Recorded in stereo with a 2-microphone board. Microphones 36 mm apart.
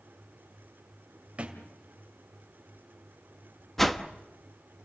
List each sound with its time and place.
1.4 s a thud: 35° right (ahead or behind), 2 m
3.8 s a whoosh: 5° left (ahead or behind), 1.0 m